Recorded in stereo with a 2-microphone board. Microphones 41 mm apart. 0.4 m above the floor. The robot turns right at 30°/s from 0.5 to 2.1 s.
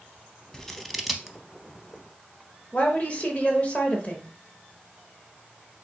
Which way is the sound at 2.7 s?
30° left (ahead or behind).